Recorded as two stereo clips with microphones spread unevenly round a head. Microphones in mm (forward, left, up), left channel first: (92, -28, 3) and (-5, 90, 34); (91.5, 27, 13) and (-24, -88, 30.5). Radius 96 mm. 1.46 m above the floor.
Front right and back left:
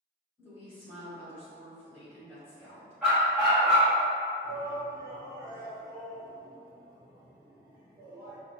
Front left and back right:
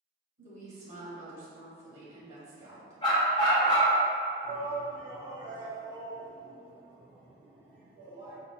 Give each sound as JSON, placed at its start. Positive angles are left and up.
{"t": 0.4, "sound": "a woman speaking", "azimuth_deg": -130, "distance_m": 1.7}
{"t": 3.0, "sound": "a dog barking", "azimuth_deg": 75, "distance_m": 0.9}
{"t": 4.4, "sound": "a shout", "azimuth_deg": -155, "distance_m": 2.0}